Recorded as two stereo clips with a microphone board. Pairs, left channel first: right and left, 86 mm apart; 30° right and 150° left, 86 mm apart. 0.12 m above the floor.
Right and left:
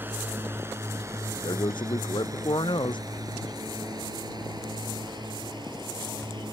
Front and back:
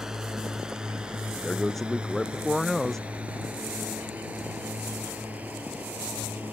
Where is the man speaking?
115° right.